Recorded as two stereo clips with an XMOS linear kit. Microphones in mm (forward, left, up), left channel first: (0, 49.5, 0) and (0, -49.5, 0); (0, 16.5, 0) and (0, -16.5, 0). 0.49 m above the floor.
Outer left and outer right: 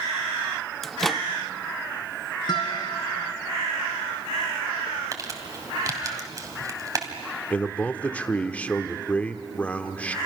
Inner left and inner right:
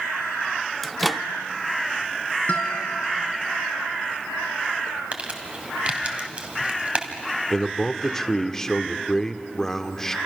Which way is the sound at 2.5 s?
45° left (ahead or behind).